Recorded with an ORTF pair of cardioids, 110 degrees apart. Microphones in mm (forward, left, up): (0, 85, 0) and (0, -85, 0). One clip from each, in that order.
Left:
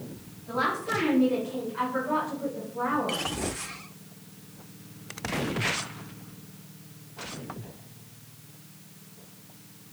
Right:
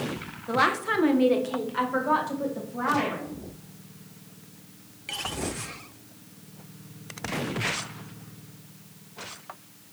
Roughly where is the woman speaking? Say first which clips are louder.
Right 4 dB; ahead right.